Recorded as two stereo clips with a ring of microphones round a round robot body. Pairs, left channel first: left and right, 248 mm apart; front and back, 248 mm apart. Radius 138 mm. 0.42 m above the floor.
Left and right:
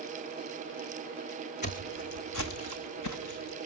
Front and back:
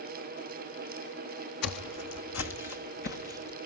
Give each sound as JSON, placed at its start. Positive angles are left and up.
{"t": 1.6, "sound": "footsteps", "azimuth_deg": 25, "distance_m": 1.2}